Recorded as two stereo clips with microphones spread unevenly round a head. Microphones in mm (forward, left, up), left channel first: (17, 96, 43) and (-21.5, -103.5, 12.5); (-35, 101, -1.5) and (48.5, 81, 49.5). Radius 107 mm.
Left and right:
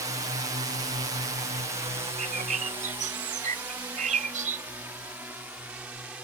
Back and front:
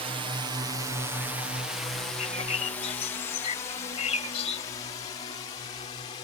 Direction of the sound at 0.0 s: 55° right.